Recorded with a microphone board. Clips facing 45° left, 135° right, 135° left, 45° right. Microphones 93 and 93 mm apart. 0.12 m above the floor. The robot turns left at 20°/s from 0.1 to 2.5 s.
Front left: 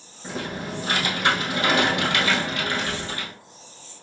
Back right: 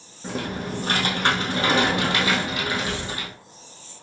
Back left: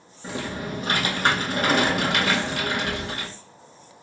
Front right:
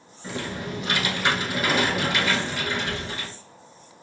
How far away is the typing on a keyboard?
About 2.5 m.